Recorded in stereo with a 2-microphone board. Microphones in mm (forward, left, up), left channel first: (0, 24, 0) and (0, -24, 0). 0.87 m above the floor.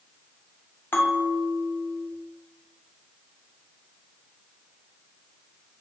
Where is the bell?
50° left (ahead or behind), 1.1 m.